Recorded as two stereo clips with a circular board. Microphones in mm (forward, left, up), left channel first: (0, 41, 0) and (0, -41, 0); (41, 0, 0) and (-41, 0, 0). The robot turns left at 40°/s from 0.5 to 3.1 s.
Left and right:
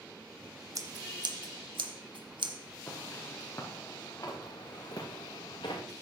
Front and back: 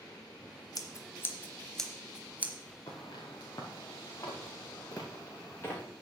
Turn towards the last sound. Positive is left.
turn(degrees=65)